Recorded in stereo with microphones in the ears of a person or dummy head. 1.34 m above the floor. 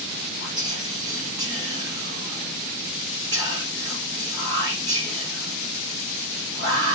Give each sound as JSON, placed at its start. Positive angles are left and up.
{"t": 0.4, "sound": "whispering", "side_deg": -40, "distance_m": 1.4}